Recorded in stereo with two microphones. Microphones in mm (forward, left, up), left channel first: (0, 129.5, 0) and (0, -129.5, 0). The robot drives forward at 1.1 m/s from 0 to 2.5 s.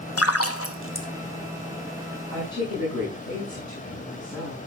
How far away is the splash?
About 1.1 m.